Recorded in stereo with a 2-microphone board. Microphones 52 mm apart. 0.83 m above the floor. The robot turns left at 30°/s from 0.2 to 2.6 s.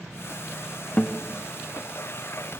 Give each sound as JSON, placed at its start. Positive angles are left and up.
{"t": 1.0, "sound": "a guitar", "side_deg": 20, "distance_m": 0.7}